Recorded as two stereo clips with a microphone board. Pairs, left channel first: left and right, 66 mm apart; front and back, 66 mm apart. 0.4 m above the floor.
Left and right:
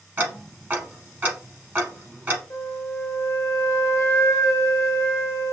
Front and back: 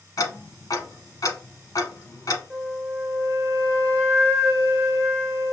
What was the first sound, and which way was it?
Ticking, 30° right.